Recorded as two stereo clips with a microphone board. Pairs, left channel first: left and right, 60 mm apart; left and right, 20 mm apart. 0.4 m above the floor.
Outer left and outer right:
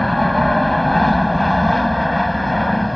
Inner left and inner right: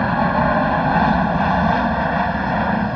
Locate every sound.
0.0 s an aircraft: centre (ahead or behind)